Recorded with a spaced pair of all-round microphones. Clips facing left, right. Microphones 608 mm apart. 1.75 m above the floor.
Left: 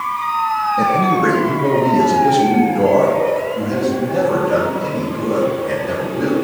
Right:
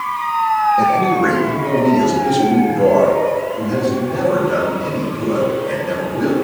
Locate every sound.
0.8 s a man speaking: 40° left (ahead or behind), 0.9 m; by 6.3 s 80° left, 3.5 m